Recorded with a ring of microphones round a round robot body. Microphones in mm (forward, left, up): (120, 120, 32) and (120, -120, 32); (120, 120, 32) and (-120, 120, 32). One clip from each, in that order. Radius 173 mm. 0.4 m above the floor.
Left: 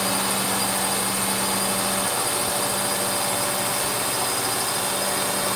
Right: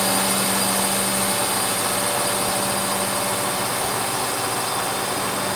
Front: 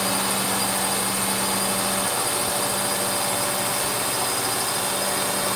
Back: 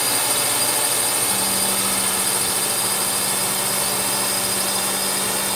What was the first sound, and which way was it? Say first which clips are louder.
A drone: right 3 dB, back 2 dB; 170° right.